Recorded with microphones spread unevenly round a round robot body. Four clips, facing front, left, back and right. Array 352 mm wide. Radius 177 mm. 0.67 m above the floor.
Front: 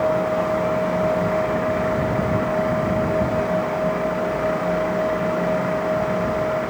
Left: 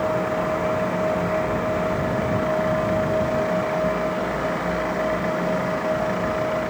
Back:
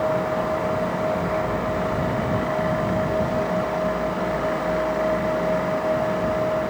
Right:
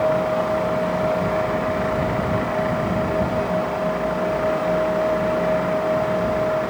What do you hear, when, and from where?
Only background noise.